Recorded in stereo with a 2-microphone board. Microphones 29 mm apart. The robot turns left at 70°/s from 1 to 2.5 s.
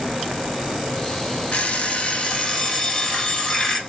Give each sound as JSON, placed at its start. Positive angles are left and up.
{"t": 1.5, "sound": "an alarm clock", "azimuth_deg": 90, "distance_m": 1.0}